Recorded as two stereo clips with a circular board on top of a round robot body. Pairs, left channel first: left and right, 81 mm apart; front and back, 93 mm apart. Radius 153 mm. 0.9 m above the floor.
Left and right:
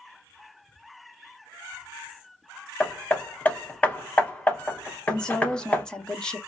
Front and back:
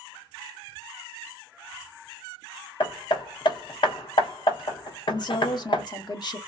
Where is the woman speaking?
15° left, 1.2 m.